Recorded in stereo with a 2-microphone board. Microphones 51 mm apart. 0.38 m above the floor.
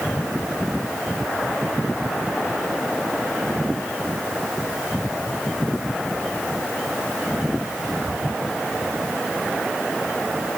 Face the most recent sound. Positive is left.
No sound to turn to.